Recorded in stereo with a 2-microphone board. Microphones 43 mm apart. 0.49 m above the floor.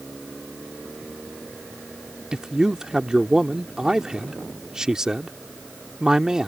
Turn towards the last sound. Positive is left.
turn(degrees=-15)  # may be behind; listen again after turning